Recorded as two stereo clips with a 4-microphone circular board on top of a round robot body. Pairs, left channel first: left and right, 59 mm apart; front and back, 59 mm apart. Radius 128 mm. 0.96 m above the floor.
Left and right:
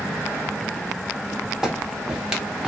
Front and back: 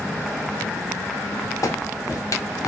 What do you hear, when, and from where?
1.6 s a clap: 10° right, 1.1 m